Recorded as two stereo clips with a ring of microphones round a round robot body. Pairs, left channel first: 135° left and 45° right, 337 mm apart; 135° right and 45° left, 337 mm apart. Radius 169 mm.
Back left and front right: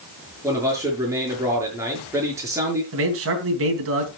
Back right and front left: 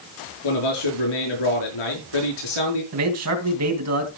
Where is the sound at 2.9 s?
5° left, 3 m.